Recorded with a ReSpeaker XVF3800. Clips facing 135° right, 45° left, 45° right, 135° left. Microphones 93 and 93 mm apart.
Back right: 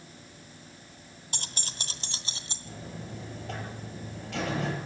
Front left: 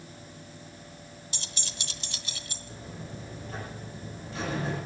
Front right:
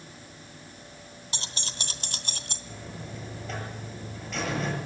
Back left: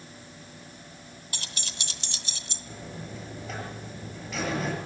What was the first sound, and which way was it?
Keys jangling, 105° right.